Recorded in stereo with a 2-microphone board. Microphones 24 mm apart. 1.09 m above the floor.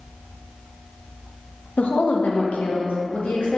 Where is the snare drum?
No snare drum in this recording.